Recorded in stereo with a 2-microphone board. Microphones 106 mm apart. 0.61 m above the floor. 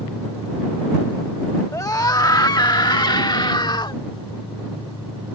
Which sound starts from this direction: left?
A scream, at 1.7 s.